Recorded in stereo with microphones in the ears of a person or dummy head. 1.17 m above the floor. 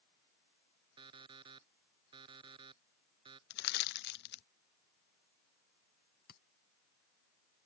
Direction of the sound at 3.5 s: 55° left (ahead or behind).